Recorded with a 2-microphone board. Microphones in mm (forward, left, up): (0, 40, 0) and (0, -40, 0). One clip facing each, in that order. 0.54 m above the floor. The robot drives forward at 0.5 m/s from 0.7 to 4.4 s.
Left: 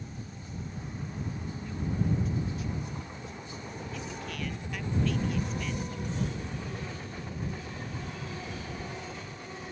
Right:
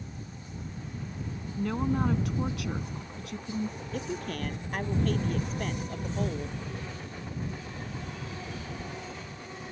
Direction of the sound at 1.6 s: 70° right (ahead or behind).